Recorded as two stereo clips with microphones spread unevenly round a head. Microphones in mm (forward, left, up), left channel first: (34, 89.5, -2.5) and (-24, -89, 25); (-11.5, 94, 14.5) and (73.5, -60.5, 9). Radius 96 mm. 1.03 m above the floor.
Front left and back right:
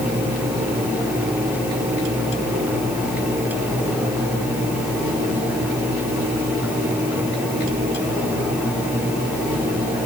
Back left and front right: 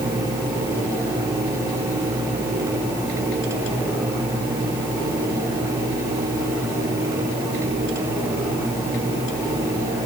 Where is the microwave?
No microwave in this recording.